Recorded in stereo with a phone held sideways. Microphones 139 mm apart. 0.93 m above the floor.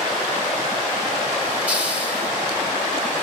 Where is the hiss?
10° right (ahead or behind), 1.0 m.